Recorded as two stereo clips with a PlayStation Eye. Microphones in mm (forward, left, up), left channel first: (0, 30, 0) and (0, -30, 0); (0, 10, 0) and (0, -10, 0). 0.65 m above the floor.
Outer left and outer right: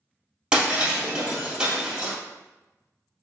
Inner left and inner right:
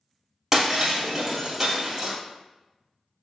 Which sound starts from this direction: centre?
Breaking glass, at 0.5 s.